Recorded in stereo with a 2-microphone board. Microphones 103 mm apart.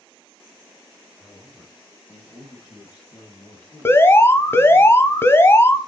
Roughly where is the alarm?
Left.